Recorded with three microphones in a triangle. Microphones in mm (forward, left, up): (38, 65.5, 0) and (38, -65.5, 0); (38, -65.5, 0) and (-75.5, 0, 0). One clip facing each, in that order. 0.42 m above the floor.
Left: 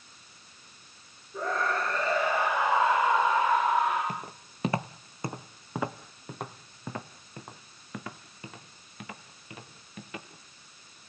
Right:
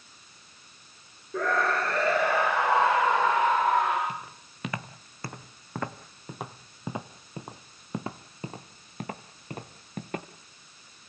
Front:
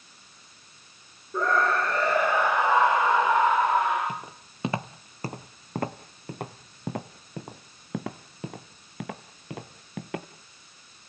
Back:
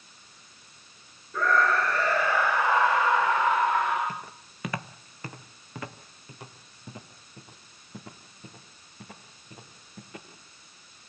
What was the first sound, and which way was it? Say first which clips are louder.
A scream: right 3 dB, even; 95° right.